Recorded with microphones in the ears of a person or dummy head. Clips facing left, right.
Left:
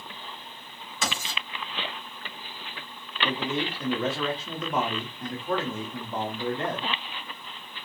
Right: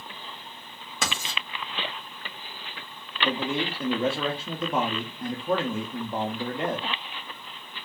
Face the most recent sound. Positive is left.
turn(degrees=-10)  # may be behind; listen again after turning